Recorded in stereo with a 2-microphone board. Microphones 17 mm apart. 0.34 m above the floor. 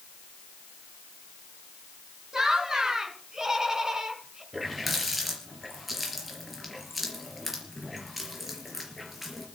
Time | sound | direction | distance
2.3 | laughter | 35° right (ahead or behind) | 3.5 m
4.5 | a running tap | 10° right (ahead or behind) | 4.5 m